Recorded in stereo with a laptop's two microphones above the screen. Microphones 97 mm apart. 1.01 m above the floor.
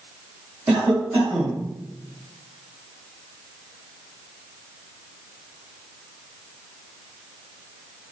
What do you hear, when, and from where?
0.7 s a cough: 20° right (ahead or behind), 1.7 m